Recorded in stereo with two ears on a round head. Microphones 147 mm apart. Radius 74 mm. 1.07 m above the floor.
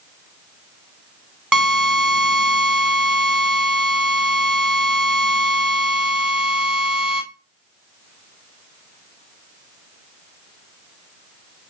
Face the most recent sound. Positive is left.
turn(degrees=-5)  # may be behind; listen again after turning